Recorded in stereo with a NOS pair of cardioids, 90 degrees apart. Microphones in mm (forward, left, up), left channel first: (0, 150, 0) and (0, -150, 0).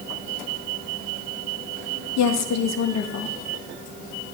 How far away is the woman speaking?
About 1.5 m.